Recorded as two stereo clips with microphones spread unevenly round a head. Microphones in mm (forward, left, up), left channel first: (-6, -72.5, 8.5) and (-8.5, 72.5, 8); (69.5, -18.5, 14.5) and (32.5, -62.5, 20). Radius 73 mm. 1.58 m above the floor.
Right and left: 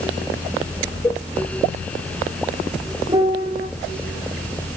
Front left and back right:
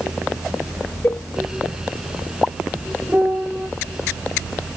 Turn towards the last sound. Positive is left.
turn(degrees=155)